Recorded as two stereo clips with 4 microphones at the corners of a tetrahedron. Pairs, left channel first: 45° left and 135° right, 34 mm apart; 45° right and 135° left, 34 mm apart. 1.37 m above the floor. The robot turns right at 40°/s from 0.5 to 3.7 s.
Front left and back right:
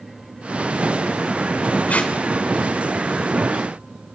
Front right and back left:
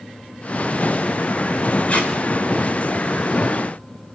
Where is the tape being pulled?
Straight ahead, 3.5 m; by 2.1 s 10° left, 3.5 m.